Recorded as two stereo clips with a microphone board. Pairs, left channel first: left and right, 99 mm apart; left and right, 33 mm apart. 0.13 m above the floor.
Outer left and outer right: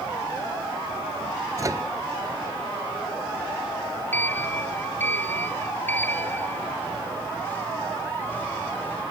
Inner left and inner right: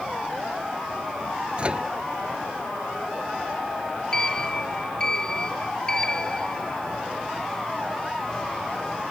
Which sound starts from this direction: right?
A microwave, at 1.6 s.